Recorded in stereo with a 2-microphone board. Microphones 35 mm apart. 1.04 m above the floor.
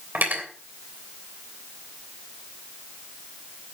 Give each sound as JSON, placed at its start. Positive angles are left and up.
{"t": 0.1, "sound": "cutlery clinking", "side_deg": -55, "distance_m": 3.0}